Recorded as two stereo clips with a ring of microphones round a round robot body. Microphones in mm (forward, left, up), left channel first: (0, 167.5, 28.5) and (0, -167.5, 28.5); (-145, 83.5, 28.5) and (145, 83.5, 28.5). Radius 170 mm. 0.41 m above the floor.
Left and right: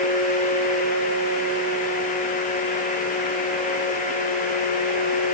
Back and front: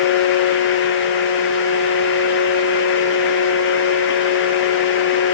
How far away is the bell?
No bell in this recording.